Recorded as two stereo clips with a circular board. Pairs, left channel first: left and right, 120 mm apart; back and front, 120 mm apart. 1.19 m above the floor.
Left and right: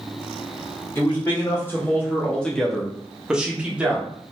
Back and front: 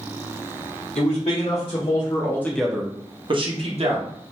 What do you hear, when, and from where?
0.9 s a man speaking: 165° left, 1.2 m; by 4.1 s 10° right, 1.1 m